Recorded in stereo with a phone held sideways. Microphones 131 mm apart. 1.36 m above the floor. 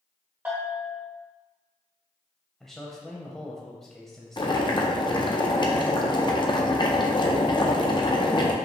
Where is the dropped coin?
I don't hear a dropped coin.